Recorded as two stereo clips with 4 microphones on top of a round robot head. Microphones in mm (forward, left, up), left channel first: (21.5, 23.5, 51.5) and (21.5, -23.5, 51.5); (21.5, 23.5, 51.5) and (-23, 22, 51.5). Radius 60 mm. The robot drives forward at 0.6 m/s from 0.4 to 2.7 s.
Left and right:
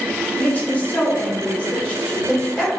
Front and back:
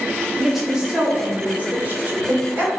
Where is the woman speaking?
95° left, 1.1 m; by 2.7 s 155° left, 1.8 m.